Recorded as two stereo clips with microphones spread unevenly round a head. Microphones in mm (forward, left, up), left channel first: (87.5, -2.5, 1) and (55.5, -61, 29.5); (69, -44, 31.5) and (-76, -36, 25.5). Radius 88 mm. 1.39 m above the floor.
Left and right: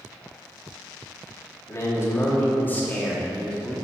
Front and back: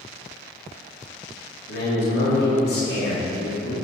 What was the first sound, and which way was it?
A man speaking, 10° left.